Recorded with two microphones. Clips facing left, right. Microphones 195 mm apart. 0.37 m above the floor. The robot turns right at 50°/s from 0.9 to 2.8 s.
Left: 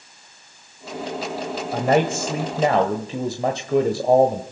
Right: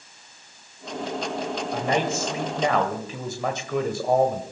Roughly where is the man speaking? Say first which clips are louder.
Left 6 dB; left.